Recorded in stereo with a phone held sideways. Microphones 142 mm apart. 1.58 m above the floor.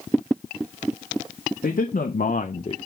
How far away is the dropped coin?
No dropped coin in this recording.